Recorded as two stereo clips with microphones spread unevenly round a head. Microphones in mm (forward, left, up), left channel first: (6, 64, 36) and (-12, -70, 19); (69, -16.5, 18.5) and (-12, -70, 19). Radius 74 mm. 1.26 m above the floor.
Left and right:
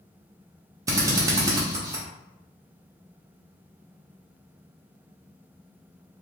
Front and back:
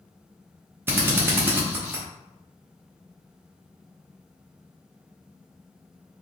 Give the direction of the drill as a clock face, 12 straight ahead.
5 o'clock.